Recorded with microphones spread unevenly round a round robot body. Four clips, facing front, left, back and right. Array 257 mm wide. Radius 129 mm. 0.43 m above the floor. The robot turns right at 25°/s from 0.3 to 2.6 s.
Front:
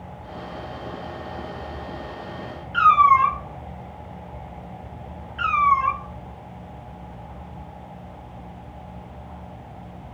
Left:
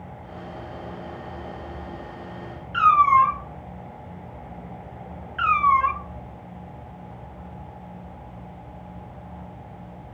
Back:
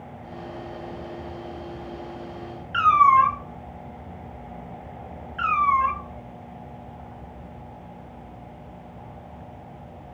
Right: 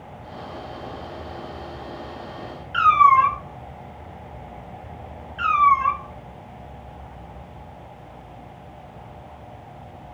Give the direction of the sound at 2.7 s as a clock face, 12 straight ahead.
5 o'clock.